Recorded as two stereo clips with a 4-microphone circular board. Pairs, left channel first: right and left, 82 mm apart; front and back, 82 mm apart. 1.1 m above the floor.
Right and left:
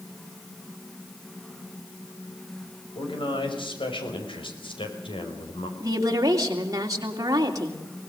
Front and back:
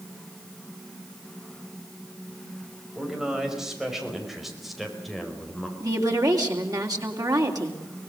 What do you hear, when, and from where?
3.0 s a man speaking: 100° right, 5 m; by 5.7 s 90° right, 4 m
5.8 s a woman speaking: 140° left, 3 m